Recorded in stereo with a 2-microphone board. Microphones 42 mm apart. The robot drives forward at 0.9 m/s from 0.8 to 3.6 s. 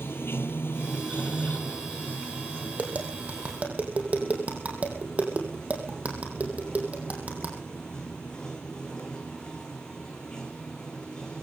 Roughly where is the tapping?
Right.